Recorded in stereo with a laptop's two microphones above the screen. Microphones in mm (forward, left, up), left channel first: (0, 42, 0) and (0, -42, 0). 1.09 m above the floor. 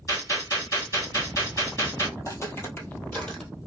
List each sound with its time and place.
0.1 s a gunshot: 40° left (ahead or behind), 1.4 m
2.2 s footsteps: 40° left (ahead or behind), 1.3 m; by 3.5 s 10° left (ahead or behind), 1.2 m